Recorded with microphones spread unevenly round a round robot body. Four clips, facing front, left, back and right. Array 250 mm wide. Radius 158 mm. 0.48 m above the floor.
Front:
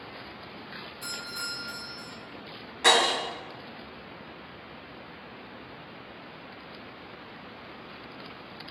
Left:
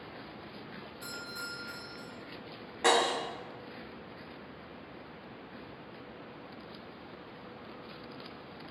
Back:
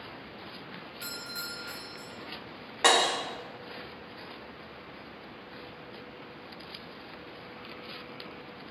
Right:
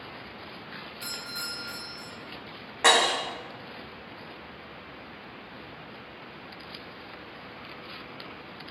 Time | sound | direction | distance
1.0 | a doorbell | 170° left | 1.8 m
2.8 | breaking glass | 135° right | 1.1 m